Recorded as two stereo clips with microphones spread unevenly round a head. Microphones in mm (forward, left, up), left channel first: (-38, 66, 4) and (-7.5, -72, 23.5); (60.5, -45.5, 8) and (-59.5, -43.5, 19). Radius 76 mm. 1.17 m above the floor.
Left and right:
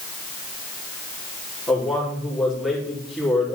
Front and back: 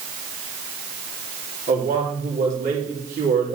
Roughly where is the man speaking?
Behind.